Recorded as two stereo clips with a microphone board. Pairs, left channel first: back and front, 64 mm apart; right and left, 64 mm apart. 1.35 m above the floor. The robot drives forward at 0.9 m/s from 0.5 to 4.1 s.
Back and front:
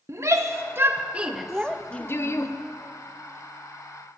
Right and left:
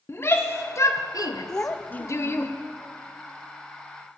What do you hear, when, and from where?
0.1 s a shout: 40° right, 1.1 m; by 2.5 s 145° right, 1.2 m
1.5 s a child speaking: 50° right, 0.6 m; by 2.6 s 160° right, 0.9 m